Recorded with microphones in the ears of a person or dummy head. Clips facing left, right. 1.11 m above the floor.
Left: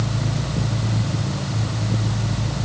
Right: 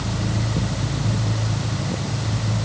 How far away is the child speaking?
I don't hear a child speaking.